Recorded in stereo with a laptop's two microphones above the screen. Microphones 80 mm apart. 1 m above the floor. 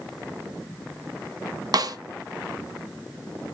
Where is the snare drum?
55° right (ahead or behind), 0.5 m.